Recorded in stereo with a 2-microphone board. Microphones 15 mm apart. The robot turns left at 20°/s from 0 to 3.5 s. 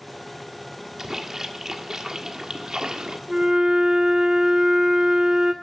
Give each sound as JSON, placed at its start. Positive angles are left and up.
{"t": 1.0, "sound": "a splash", "azimuth_deg": -35, "distance_m": 1.5}
{"t": 3.3, "sound": "a flute", "side_deg": -55, "distance_m": 1.2}